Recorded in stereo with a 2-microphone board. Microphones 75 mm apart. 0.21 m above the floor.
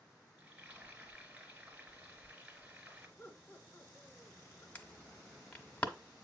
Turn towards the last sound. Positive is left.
turn(degrees=20)  # may be behind; listen again after turning